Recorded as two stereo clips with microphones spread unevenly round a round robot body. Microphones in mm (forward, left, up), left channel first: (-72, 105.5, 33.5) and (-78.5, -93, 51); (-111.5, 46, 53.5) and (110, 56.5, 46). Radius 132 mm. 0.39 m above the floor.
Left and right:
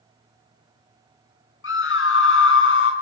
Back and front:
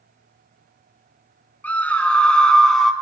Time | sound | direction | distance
1.6 | a scream | 100° left | 5.5 m